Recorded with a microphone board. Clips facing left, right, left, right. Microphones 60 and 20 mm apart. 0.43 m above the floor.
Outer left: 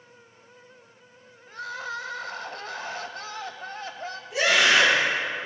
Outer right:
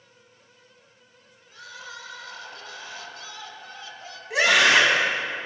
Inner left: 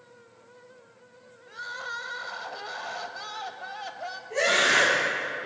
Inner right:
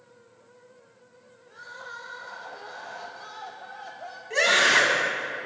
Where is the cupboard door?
I don't hear a cupboard door.